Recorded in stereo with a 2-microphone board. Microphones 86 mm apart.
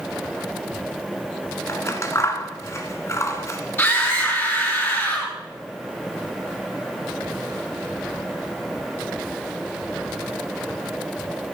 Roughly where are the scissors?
Left.